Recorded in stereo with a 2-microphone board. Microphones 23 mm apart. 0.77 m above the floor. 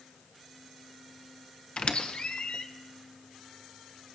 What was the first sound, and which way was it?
A squeak, 50° left (ahead or behind).